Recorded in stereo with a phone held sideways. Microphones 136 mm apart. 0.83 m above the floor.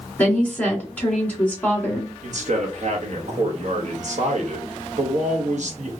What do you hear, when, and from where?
0.2 s a woman speaking: 10° left (ahead or behind), 2 m
2.2 s a man speaking: 60° right (ahead or behind), 1.0 m